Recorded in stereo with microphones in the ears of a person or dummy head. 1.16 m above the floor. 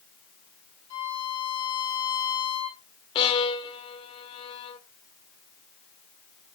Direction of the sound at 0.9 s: 60° left (ahead or behind).